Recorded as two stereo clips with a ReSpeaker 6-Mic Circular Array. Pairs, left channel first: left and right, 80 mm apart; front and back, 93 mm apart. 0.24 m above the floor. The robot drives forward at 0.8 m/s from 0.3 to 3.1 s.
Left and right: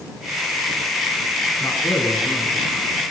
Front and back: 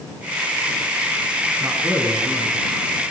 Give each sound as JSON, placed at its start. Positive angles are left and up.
{"t": 1.6, "sound": "a man speaking", "azimuth_deg": 125, "distance_m": 1.8}